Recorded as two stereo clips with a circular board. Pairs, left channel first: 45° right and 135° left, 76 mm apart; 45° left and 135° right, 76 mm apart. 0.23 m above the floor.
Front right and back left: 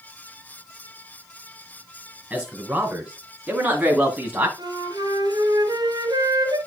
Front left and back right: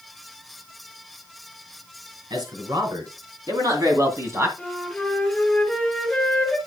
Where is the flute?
130° left, 2 m.